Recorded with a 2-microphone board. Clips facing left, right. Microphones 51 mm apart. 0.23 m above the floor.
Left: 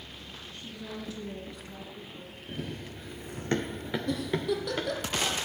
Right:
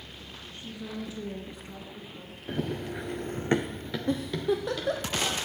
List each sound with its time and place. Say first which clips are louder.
0.5 s a woman speaking: right 3 dB; 20° right (ahead or behind), 2.5 m; by 2.4 s 25° right (ahead or behind), 1.7 m
2.5 s running footsteps: right 7 dB; 80° right, 1.4 m; by 5.1 s 40° left (ahead or behind), 2.5 m
4.1 s a giggle: right 3 dB; 30° right (ahead or behind), 1.4 m